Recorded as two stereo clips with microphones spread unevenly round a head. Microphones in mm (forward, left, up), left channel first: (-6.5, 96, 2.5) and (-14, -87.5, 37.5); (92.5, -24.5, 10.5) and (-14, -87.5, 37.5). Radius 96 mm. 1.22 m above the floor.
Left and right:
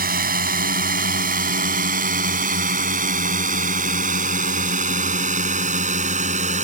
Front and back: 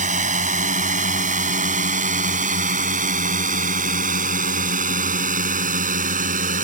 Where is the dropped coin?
I don't hear a dropped coin.